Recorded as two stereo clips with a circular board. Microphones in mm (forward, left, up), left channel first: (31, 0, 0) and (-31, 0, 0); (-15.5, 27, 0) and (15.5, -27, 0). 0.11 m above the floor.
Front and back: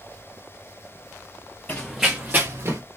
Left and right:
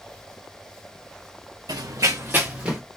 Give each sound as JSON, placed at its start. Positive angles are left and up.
{"t": 1.7, "sound": "running footsteps", "azimuth_deg": -65, "distance_m": 0.6}